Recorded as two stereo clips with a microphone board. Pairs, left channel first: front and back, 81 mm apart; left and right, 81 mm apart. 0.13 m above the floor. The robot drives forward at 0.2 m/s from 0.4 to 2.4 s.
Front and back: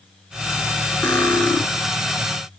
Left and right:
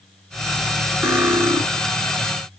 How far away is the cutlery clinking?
About 0.9 m.